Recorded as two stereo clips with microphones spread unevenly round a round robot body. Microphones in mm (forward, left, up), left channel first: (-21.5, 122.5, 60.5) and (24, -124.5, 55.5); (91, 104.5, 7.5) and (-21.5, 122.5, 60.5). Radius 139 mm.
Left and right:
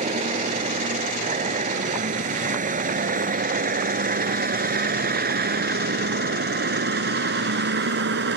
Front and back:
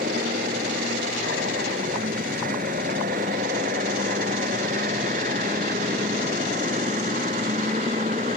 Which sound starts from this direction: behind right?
A vehicle, at 0.0 s.